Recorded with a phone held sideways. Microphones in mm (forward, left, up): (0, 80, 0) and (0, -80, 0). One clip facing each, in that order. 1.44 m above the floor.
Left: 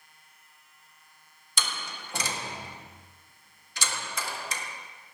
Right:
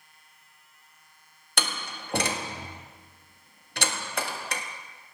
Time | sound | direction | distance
1.6 | a door slam | 60° right (ahead or behind) | 1.6 m